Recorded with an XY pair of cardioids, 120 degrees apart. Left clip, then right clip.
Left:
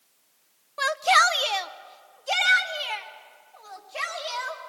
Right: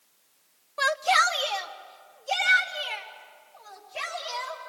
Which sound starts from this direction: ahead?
A shout, at 0.8 s.